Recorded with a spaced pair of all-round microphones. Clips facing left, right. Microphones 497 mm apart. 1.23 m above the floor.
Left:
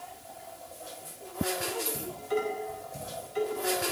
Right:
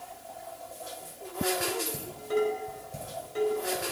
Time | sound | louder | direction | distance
1.9 | dishes clattering | right 3 dB | 70° right (ahead or behind) | 4.5 m